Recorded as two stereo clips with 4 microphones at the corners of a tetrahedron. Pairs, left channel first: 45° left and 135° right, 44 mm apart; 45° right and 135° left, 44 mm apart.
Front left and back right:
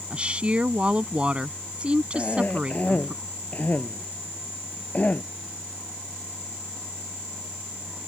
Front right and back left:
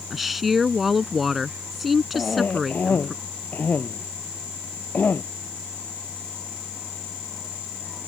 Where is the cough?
5° right.